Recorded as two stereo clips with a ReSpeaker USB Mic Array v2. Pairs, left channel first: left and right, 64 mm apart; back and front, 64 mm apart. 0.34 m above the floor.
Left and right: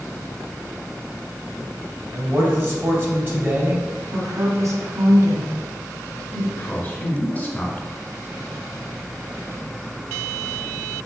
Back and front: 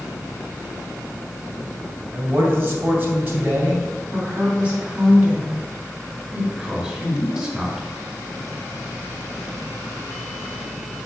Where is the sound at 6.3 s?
65° left, 1.6 m.